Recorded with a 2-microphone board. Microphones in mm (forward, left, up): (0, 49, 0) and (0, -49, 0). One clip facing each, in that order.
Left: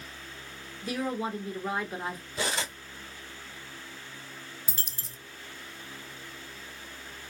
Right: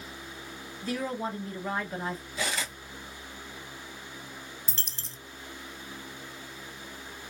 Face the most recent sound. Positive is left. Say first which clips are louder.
# even
turn(degrees=10)  # may be behind; listen again after turning